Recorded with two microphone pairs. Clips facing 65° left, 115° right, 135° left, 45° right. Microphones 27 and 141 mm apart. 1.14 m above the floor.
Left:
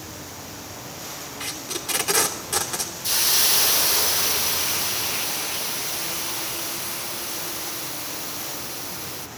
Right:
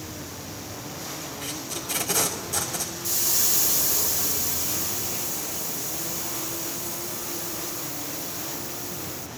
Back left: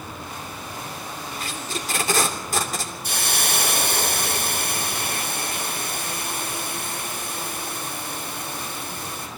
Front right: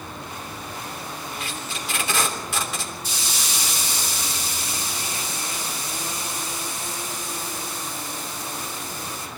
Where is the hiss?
110° left, 0.5 m.